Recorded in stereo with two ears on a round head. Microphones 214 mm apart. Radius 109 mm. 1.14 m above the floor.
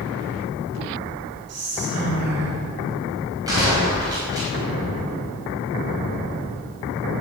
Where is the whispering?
75° right (ahead or behind), 3.5 m.